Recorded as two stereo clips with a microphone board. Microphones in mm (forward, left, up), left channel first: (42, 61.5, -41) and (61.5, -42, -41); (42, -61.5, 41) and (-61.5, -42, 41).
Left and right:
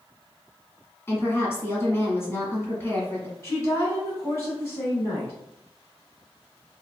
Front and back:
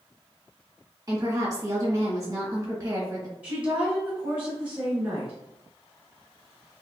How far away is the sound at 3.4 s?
About 1.1 m.